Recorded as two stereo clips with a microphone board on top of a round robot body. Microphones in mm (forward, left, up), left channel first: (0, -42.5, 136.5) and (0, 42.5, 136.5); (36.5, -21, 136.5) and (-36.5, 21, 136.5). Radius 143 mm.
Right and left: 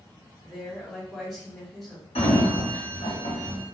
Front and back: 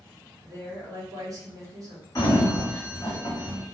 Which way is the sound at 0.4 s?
Straight behind.